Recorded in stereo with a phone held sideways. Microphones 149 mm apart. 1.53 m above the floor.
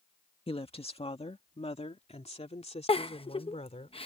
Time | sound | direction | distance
0.5 | a woman speaking | 40° left (ahead or behind) | ?
2.9 | a giggle | 40° left (ahead or behind) | ?